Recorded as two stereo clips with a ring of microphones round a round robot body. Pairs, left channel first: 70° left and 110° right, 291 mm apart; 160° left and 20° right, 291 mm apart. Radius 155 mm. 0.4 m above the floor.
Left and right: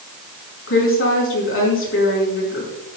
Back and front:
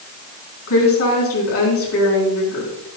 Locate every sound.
0.7 s a woman speaking: 115° left, 5.5 m